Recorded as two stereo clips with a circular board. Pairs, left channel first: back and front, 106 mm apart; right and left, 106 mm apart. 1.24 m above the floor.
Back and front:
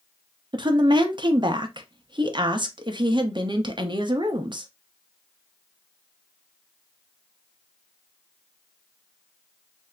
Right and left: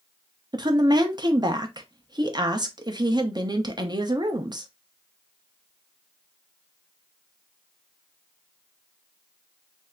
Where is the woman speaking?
45° left, 0.8 m.